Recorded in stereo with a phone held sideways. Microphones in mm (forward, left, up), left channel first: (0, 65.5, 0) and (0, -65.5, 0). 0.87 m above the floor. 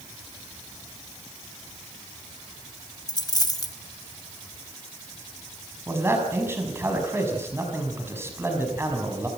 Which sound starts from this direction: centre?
A man speaking, at 5.9 s.